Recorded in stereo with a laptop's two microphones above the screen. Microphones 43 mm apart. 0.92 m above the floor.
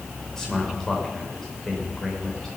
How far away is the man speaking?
About 3 m.